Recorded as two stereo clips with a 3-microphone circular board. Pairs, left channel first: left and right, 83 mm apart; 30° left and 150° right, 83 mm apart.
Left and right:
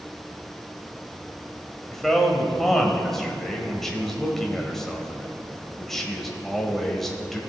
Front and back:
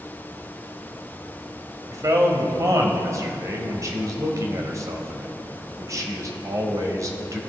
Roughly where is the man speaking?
Behind.